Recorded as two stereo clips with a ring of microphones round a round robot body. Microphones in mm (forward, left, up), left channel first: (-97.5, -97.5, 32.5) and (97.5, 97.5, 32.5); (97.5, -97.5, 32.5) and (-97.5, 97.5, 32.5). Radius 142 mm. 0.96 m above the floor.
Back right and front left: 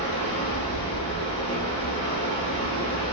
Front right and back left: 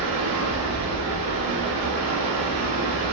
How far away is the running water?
About 1.7 m.